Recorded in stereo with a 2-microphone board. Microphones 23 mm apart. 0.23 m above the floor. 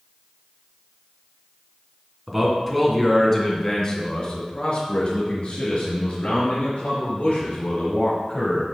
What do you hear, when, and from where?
2.3 s a man speaking: 5° right (ahead or behind), 2.5 m; by 8.7 s 75° left (ahead or behind), 5.5 m